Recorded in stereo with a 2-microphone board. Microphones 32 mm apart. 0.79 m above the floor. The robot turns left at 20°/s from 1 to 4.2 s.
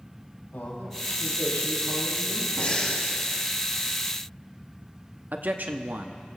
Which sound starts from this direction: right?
A man speaking, at 5.3 s.